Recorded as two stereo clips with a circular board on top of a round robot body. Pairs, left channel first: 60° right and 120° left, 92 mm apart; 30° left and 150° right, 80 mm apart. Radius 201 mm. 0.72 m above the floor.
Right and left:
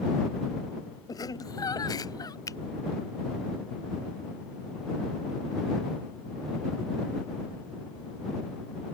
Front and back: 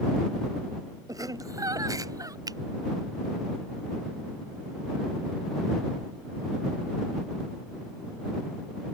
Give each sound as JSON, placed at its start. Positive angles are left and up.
{"t": 1.1, "sound": "laughter", "azimuth_deg": -105}
{"t": 2.5, "sound": "a finger snap", "azimuth_deg": -110}